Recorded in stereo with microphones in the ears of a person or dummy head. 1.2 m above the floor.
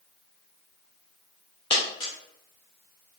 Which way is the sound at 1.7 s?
25° left (ahead or behind).